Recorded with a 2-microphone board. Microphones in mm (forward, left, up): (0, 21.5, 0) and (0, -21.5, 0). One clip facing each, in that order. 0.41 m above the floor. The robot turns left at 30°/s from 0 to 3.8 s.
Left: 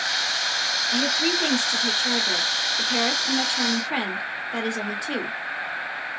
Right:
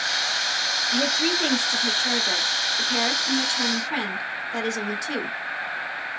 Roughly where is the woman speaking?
Centre.